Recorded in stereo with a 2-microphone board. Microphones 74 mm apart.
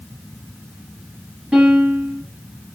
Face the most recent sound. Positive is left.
turn(degrees=-15)  # may be behind; listen again after turning